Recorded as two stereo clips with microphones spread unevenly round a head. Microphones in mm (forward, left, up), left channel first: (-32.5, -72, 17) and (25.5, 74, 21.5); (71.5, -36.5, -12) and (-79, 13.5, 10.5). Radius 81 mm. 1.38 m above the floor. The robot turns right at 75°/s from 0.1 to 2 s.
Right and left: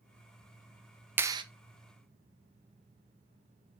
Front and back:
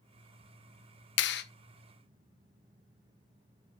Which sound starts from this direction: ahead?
A clap, at 1.2 s.